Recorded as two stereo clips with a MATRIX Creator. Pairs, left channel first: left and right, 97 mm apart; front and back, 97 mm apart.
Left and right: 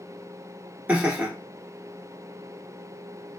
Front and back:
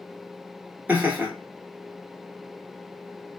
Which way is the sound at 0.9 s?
135° right.